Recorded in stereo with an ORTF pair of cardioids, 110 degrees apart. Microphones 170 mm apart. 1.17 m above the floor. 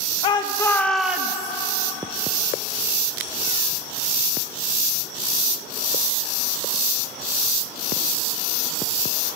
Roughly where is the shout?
Ahead left.